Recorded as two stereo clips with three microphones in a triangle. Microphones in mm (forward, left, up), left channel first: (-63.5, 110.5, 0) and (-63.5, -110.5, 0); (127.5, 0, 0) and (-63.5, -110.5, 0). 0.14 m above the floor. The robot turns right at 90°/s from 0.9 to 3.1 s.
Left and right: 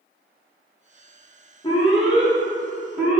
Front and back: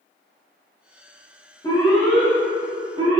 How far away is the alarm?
About 1.0 m.